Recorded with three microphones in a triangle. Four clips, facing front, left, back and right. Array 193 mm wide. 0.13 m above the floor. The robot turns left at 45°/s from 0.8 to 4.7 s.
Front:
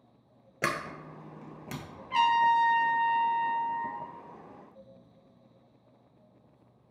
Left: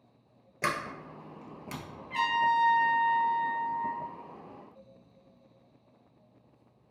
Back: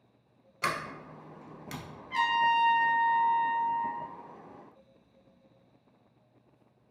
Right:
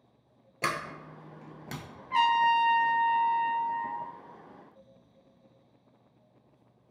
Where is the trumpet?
50° right, 0.6 m; by 4.1 s 140° right, 0.6 m.